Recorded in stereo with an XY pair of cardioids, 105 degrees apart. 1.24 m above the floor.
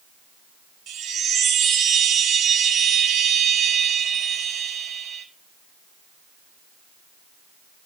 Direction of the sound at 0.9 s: 55° right.